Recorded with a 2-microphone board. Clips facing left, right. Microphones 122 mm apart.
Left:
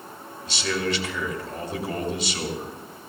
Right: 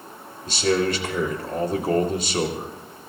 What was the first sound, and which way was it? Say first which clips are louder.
A man speaking: right 6 dB; 45° right (ahead or behind).